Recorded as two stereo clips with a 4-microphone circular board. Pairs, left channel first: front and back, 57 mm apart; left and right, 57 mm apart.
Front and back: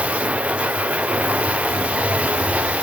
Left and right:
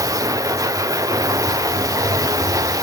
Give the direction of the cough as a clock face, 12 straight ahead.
No cough in this recording.